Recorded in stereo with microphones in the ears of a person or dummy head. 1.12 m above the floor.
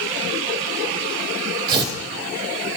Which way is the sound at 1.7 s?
20° right (ahead or behind).